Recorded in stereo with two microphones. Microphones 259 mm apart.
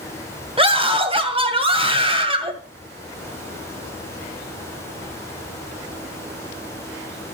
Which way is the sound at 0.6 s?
20° right (ahead or behind).